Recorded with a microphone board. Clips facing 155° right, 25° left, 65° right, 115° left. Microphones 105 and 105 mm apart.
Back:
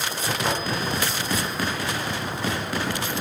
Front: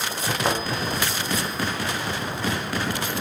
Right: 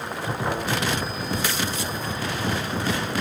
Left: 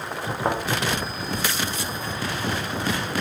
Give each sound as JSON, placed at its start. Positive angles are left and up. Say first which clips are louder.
{"t": 0.5, "sound": "a thud", "louder": "front 2 dB, left 4 dB", "azimuth_deg": 90, "distance_m": 3.0}